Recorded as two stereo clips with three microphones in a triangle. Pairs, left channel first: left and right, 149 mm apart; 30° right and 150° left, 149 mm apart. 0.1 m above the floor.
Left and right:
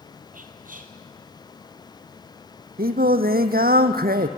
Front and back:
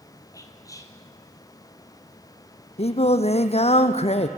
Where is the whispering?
95° right, 2.5 m.